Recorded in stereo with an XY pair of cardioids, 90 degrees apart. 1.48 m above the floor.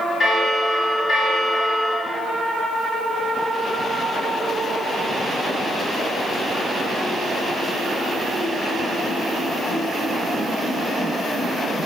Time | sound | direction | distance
0.2 | a bell | 45° left | 2.5 m